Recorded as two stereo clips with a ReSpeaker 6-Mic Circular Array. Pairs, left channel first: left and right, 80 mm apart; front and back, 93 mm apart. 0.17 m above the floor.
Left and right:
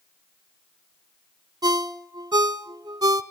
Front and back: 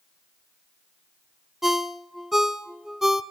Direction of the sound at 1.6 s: 95° right.